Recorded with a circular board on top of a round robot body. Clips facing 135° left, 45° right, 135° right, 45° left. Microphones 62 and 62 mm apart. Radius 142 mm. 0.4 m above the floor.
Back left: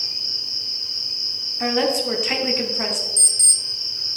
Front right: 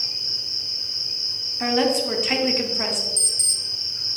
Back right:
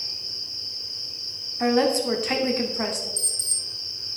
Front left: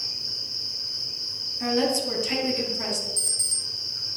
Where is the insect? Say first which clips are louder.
Back left 1 dB, front left 1 dB; 25° left, 1.7 m.